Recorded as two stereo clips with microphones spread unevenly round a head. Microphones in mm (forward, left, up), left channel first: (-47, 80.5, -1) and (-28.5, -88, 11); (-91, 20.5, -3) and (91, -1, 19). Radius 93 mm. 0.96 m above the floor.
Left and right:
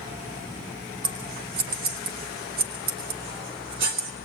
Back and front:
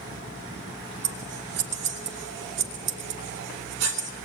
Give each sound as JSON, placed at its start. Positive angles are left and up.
{"t": 1.0, "sound": "scissors", "azimuth_deg": -40, "distance_m": 2.5}